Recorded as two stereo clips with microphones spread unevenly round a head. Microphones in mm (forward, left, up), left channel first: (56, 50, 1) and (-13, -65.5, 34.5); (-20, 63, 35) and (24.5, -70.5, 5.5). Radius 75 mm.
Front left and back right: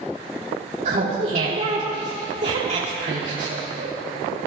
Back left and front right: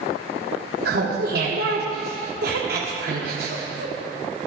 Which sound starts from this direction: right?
Laughter, at 0.8 s.